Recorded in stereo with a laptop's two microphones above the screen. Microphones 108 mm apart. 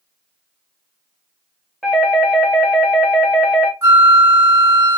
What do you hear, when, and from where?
1.8 s a doorbell: centre (ahead or behind), 1.0 m
3.8 s a flute: 30° right (ahead or behind), 1.7 m